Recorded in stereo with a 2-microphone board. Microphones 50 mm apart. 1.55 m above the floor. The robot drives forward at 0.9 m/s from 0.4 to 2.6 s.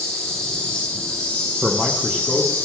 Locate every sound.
0.0 s an insect: 15° left (ahead or behind), 4.5 m; by 2.6 s 30° left (ahead or behind), 2.5 m
1.6 s a man speaking: 10° right (ahead or behind), 0.7 m; by 2.5 s 5° right (ahead or behind), 1.6 m